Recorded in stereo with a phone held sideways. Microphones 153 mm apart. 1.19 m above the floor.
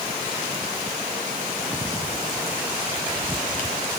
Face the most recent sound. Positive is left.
No sound to turn to.